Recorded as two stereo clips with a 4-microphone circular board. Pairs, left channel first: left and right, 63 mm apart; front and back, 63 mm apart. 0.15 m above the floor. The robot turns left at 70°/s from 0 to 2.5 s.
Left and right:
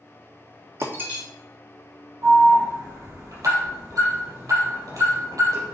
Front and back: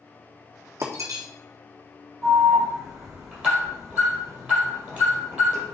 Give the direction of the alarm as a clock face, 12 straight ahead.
3 o'clock.